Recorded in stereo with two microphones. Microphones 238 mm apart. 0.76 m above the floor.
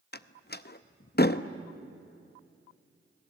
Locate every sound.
0.1 s a door slam: 45° left (ahead or behind), 0.6 m